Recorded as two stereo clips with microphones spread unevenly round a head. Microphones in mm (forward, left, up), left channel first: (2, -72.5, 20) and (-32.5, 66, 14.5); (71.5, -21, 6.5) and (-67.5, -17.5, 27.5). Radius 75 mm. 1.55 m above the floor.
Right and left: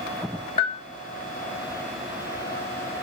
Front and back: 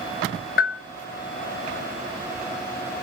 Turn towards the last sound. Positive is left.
turn(degrees=-20)